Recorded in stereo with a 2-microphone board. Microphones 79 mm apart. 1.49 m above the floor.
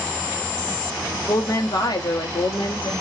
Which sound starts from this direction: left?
A woman speaking, at 1.3 s.